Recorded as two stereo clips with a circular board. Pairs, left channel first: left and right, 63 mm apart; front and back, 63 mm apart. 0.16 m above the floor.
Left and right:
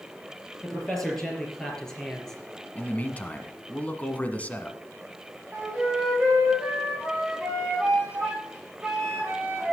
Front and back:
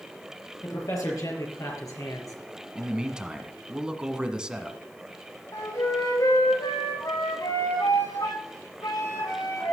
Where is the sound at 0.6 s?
5° left, 4.5 m; by 2.4 s 10° left, 3.5 m.